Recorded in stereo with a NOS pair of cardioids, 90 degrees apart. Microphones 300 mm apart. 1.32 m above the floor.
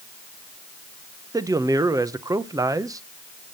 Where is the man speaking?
10° right, 0.9 m.